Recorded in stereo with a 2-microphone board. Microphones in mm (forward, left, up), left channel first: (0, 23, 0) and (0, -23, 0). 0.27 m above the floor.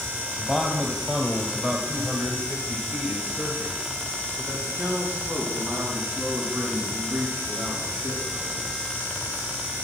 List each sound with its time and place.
0.4 s a man speaking: centre (ahead or behind), 1.7 m; by 8.7 s 55° right (ahead or behind), 4.5 m